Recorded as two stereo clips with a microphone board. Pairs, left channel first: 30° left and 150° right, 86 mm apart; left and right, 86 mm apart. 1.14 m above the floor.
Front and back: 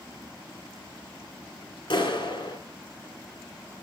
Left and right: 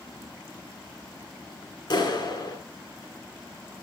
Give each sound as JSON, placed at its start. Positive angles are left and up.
{"t": 1.9, "sound": "a clap", "azimuth_deg": 60, "distance_m": 2.5}